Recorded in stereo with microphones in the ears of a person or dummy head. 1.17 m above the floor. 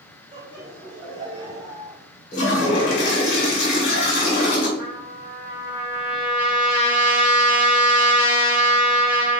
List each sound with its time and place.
0.3 s laughter: 25° right (ahead or behind), 2 m; by 2.0 s 5° right (ahead or behind), 0.8 m
2.3 s a toilet flushing: 50° left (ahead or behind), 1.5 m
4.8 s a trumpet: centre (ahead or behind), 2.5 m